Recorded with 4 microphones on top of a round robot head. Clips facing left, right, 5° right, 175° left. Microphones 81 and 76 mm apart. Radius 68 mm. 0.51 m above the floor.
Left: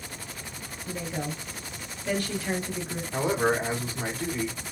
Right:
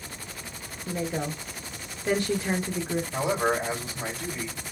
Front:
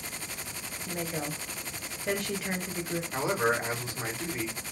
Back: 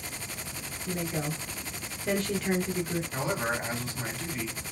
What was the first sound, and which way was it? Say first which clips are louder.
A woman speaking: right 3 dB, back 2 dB; 80° right.